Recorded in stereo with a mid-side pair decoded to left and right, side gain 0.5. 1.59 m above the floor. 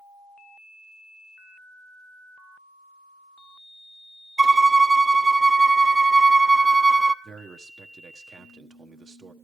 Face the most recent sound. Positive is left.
turn(degrees=-35)